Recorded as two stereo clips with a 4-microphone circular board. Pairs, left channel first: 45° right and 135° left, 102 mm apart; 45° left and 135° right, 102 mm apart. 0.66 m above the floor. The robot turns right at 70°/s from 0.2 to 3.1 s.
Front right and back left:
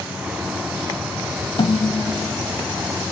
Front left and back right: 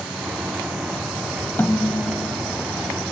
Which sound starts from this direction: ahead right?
A snare drum, at 1.6 s.